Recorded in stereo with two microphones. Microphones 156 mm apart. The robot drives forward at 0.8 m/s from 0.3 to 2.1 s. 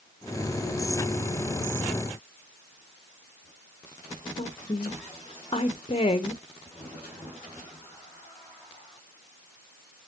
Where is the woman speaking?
40° left (ahead or behind), 0.8 m.